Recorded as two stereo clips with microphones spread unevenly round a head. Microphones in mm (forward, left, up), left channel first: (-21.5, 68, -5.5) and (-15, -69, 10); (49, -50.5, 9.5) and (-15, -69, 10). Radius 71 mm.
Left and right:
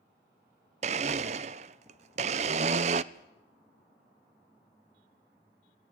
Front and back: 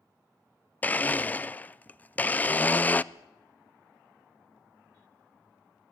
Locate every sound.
0.8 s a blender: 50° right, 0.6 m
3.1 s a whoosh: 80° left, 1.8 m